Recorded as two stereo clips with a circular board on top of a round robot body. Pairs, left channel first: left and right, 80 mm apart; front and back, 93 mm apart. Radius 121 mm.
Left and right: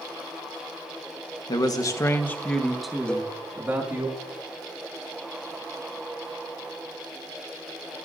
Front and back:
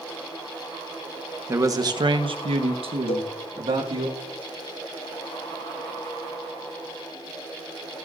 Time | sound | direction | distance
1.5 | a man speaking | 120° left | 1.5 m
3.1 | a cowbell | 15° left | 0.6 m